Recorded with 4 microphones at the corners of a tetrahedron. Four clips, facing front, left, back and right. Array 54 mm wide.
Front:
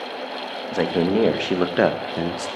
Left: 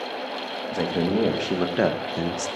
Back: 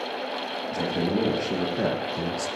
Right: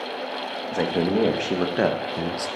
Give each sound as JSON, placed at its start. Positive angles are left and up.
{"t": 0.7, "sound": "a man speaking", "azimuth_deg": -15, "distance_m": 2.0}